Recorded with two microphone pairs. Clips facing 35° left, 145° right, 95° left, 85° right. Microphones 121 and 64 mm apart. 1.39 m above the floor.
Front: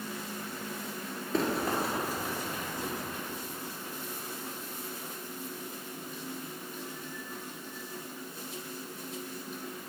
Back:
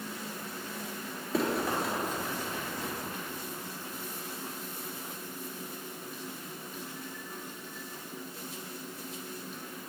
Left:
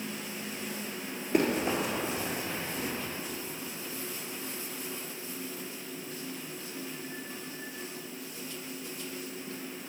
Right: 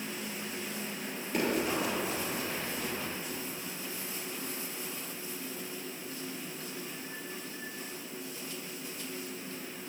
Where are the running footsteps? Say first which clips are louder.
Even, left 3 dB; 135° left, 1.6 m; by 2.9 s 60° left, 1.4 m.